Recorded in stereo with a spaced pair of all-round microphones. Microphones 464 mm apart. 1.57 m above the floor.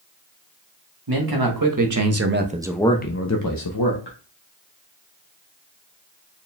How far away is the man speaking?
About 1.3 m.